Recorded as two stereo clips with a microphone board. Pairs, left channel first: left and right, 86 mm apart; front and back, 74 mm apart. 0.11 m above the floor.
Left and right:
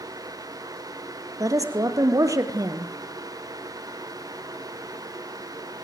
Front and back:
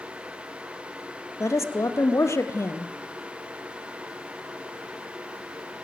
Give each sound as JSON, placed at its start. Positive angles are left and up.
{"t": 1.4, "sound": "a woman speaking", "azimuth_deg": -45, "distance_m": 2.5}